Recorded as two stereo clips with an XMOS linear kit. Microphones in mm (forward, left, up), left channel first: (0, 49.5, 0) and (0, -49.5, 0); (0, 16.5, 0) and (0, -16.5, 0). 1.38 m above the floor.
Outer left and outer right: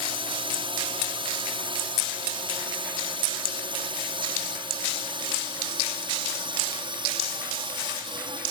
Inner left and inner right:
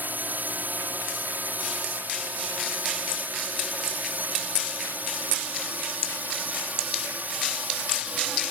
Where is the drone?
60° right (ahead or behind); by 8.5 s 55° right (ahead or behind).